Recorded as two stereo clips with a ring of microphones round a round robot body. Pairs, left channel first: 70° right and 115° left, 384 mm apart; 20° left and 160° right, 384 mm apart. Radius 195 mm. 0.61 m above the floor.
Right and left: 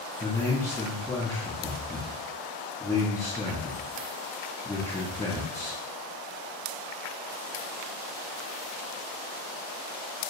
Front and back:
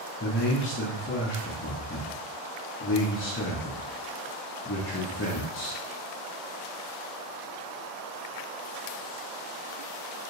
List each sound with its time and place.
0.2 s a man speaking: 10° left, 0.8 m